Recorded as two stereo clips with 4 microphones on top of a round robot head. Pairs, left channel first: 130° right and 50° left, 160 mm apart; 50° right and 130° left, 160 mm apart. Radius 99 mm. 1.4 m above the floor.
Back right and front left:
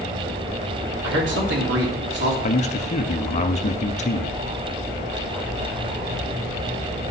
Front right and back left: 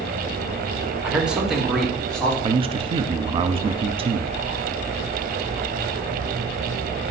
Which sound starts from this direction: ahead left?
A man speaking, at 1.0 s.